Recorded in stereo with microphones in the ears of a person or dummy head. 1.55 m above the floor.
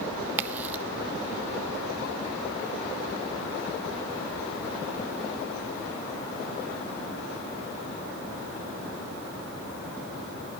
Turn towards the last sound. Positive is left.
turn(degrees=-10)  # may be behind; listen again after turning